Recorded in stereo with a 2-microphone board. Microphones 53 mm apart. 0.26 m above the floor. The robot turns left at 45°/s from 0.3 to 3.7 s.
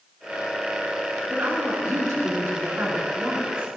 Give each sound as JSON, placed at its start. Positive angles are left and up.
{"t": 1.3, "sound": "a woman speaking", "azimuth_deg": -45, "distance_m": 3.0}